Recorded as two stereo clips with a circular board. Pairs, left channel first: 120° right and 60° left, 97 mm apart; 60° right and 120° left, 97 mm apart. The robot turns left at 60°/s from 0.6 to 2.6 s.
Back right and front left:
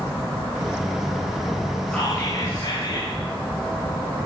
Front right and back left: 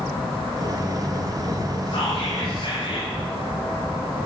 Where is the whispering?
35° right, 9 m; by 3.1 s 80° right, 9 m.